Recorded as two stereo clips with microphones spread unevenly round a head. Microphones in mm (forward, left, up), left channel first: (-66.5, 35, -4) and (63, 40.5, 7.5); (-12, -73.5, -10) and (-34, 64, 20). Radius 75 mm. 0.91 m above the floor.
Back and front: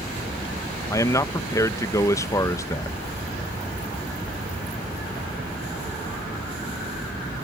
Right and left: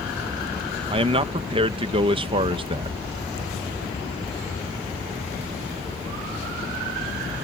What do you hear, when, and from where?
0.9 s a man speaking: 145° left